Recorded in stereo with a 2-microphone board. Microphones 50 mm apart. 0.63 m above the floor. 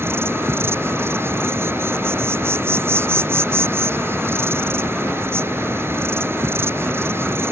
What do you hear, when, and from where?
0.0 s an insect: 50° right (ahead or behind)